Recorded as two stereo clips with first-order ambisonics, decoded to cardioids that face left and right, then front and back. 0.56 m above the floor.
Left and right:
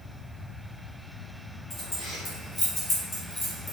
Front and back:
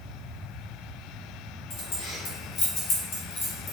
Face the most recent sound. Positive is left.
turn(degrees=40)